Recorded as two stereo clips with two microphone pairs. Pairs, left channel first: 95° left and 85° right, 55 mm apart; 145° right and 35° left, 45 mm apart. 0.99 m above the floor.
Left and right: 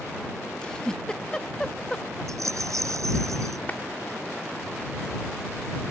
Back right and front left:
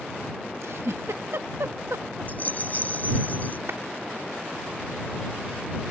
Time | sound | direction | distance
0.6 | a giggle | 25° left | ?
2.3 | a rattle | 95° right | ?
3.7 | a clap | 40° left | ?